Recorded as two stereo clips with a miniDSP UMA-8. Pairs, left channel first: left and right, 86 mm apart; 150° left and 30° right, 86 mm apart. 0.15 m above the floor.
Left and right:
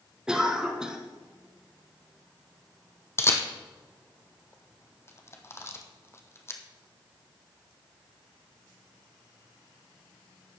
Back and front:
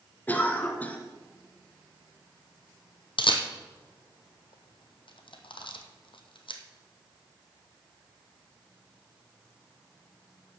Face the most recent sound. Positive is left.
turn(degrees=150)